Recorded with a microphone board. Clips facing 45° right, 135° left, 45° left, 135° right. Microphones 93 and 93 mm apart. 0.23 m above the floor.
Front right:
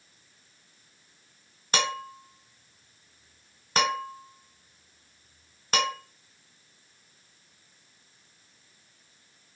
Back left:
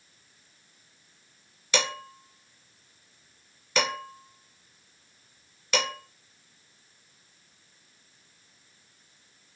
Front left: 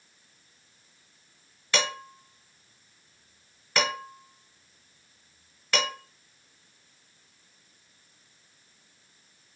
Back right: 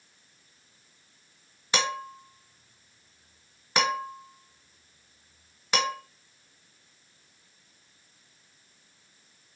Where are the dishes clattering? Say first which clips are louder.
Front right 1 dB, back right 1 dB; 70° right, 1.2 m.